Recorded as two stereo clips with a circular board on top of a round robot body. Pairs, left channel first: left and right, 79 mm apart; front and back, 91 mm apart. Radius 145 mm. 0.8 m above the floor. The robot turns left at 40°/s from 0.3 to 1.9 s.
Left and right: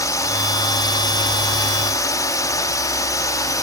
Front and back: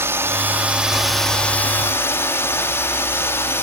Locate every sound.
0.0 s a drone: 120° left; by 3.6 s 60° left